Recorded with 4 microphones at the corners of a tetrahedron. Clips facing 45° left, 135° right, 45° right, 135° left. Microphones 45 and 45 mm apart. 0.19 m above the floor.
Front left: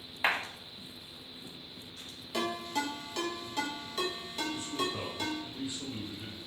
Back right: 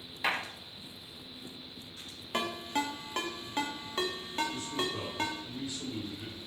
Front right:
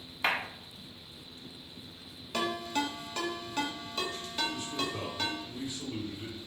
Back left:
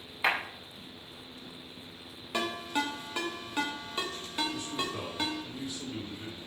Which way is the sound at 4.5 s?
40° left.